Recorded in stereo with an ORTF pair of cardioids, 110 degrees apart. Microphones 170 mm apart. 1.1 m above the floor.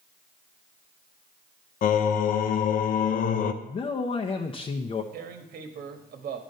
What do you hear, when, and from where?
1.8 s singing: 55° left, 0.7 m
3.6 s a man speaking: 30° left, 0.7 m
5.1 s tearing paper: 65° right, 1.2 m